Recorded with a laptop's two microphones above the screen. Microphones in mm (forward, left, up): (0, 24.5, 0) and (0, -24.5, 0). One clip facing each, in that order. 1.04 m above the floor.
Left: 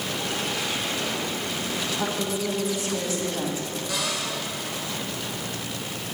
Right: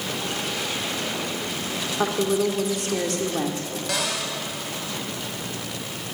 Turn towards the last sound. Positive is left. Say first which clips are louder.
# right 3 dB
turn(degrees=-85)